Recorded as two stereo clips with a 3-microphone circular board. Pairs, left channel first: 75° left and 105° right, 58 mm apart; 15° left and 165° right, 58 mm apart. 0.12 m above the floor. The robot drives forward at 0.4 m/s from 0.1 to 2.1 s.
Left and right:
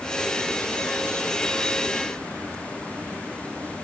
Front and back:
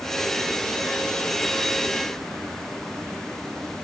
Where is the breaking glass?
I don't hear breaking glass.